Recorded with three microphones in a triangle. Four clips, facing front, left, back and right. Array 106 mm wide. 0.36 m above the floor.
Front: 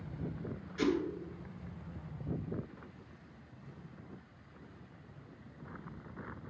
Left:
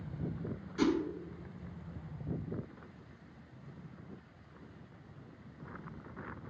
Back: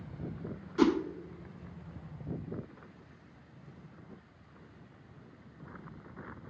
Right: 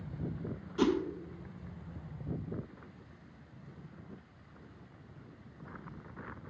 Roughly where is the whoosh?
Behind.